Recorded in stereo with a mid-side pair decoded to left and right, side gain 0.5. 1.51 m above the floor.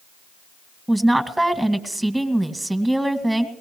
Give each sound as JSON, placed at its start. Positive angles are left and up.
{"t": 0.9, "sound": "a woman speaking", "azimuth_deg": -5, "distance_m": 1.8}